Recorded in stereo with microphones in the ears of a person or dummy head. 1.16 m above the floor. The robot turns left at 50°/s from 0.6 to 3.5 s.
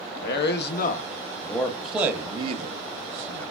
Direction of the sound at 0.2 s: 65° left (ahead or behind).